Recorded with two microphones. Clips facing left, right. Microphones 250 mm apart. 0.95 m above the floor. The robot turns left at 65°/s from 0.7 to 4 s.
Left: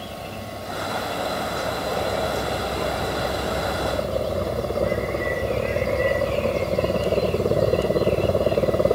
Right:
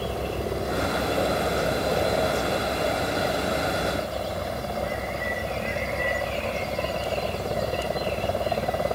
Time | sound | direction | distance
0.0 | a helicopter | 90° right | ?